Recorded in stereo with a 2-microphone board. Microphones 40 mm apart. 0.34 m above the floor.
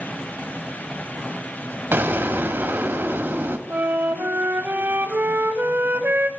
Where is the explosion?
55° right (ahead or behind), 1.1 m.